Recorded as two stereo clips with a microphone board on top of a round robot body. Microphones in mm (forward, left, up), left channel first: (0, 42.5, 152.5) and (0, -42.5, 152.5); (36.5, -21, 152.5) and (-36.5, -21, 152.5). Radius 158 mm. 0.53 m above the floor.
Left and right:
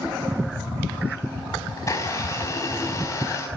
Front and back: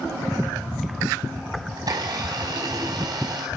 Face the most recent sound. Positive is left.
turn(degrees=145)